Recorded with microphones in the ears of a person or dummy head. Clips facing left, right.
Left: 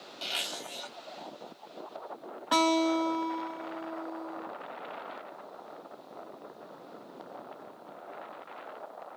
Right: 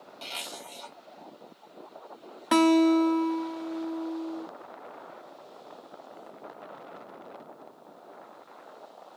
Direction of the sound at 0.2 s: 10° left (ahead or behind).